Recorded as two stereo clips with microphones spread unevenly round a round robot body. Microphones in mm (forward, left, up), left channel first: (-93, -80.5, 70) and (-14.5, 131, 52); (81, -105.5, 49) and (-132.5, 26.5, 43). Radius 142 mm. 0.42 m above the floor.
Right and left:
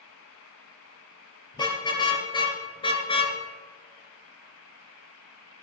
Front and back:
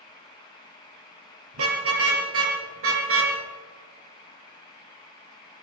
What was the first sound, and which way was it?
A car horn, straight behind.